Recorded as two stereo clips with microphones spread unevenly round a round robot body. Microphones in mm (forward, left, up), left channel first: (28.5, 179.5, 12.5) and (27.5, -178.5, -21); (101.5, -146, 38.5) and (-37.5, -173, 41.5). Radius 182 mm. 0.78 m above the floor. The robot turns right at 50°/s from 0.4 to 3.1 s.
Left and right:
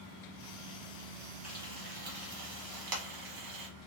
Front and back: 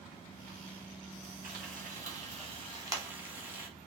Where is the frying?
175° right, 1.4 m; by 3.7 s 95° right, 1.4 m.